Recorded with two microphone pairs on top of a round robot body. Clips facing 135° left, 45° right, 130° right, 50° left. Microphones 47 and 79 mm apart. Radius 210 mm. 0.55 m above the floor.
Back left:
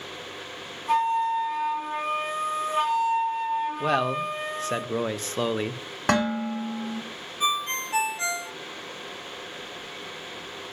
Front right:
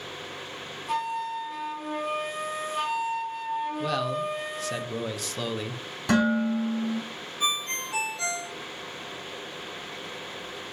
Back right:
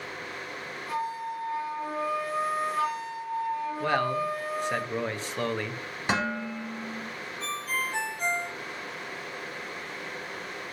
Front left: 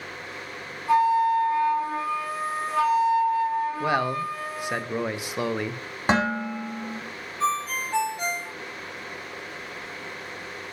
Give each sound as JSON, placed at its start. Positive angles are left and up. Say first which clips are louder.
{"t": 0.9, "sound": "a flute", "louder": "back left 7 dB, front left 13 dB", "azimuth_deg": 75, "distance_m": 1.7}
{"t": 3.8, "sound": "a man speaking", "louder": "back left 3 dB, front left 2 dB", "azimuth_deg": 130, "distance_m": 0.9}
{"t": 6.1, "sound": "dishes clattering", "louder": "front right 1 dB, front left 6 dB", "azimuth_deg": 100, "distance_m": 3.5}
{"t": 7.4, "sound": "a ringtone", "louder": "back left 3 dB, front left 7 dB", "azimuth_deg": 70, "distance_m": 3.0}